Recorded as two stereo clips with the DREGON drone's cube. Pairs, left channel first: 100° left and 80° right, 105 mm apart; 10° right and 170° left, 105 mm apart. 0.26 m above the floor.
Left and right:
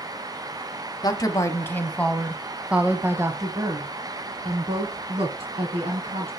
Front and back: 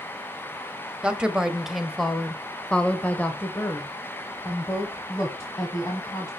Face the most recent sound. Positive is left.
turn(degrees=-75)